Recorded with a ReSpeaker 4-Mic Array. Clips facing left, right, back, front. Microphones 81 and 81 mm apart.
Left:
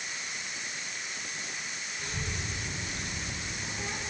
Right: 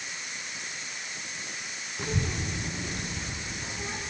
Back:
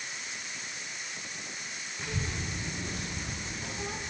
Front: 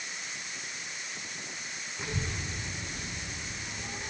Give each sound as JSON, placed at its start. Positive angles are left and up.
{"t": 2.0, "sound": "a child speaking", "azimuth_deg": -75, "distance_m": 0.8}